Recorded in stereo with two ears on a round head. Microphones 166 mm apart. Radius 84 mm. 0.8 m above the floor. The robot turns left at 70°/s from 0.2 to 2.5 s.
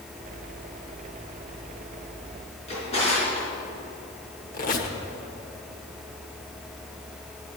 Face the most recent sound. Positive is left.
turn(degrees=45)  # may be behind; listen again after turning